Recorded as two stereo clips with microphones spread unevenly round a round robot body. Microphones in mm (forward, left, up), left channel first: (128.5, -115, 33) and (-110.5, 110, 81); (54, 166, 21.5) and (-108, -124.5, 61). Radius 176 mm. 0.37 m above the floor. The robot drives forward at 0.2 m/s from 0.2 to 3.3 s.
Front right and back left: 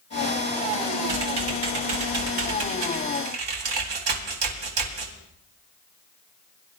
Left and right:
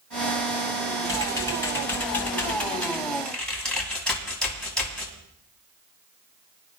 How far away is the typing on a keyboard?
About 1.9 m.